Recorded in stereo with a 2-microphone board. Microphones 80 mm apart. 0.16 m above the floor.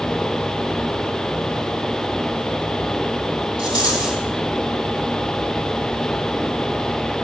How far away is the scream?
I don't hear a scream.